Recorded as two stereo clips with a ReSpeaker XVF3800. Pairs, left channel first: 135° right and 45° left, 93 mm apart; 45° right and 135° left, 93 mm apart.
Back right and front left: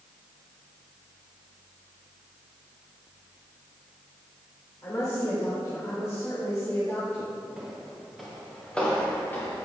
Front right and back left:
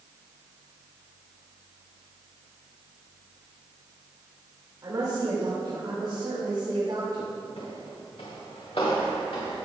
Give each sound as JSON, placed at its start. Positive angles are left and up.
{"t": 4.8, "sound": "a woman speaking", "azimuth_deg": 180, "distance_m": 3.0}
{"t": 7.6, "sound": "footsteps", "azimuth_deg": -40, "distance_m": 4.0}